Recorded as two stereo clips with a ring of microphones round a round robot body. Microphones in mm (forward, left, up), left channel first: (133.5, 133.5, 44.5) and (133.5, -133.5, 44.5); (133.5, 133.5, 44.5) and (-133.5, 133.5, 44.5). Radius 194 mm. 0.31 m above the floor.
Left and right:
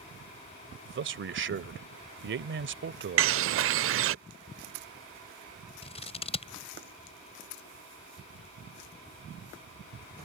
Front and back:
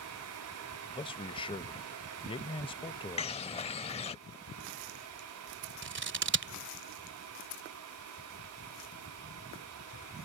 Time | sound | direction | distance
0.8 | a man speaking | 65° right | ?
3.2 | a bird | 65° right | ?
5.8 | scissors | 155° left | ?